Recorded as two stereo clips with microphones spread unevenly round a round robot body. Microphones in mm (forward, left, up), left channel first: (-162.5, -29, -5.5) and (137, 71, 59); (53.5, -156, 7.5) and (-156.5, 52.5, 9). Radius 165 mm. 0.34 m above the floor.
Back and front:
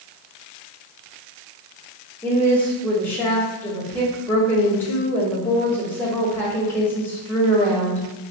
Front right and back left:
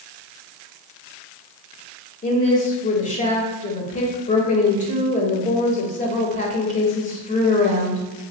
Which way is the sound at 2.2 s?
95° right.